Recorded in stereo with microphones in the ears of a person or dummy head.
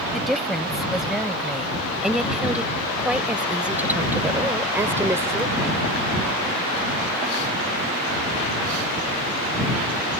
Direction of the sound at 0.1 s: Centre (ahead or behind).